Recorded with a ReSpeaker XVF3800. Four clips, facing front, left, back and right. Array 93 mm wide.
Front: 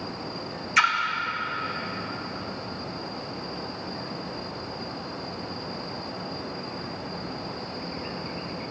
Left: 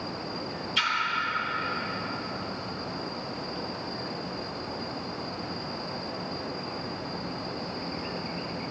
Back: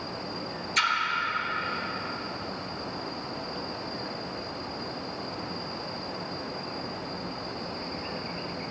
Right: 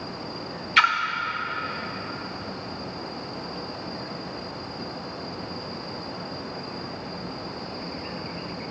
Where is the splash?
65° right, 0.7 m.